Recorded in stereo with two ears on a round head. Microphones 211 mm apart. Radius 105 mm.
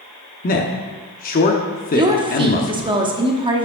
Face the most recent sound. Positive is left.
turn(degrees=-20)  # may be behind; listen again after turning